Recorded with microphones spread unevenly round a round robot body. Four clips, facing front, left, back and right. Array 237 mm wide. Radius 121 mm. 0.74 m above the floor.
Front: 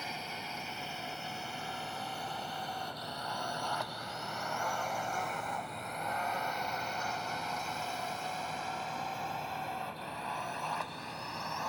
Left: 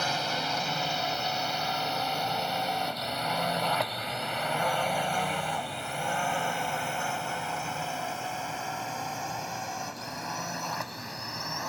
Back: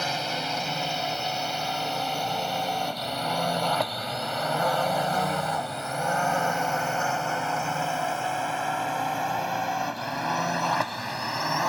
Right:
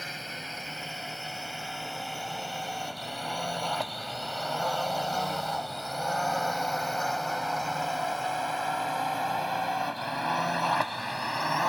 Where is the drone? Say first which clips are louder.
Left 10 dB, back 12 dB; 150° left; by 11.7 s 150° right.